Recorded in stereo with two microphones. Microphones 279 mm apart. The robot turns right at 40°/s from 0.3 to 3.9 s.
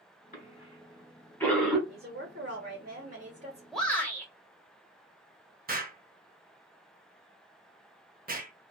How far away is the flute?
I don't hear a flute.